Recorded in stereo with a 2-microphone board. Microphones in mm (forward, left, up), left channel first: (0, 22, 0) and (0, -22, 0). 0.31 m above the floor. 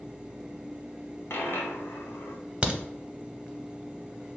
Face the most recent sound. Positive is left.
turn(degrees=-25)  # may be behind; listen again after turning